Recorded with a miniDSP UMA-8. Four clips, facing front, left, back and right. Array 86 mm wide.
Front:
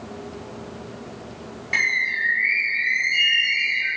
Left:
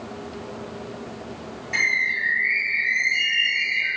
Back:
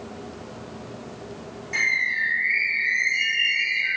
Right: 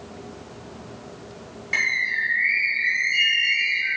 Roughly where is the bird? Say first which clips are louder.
Left 1 dB, front 1 dB; ahead right.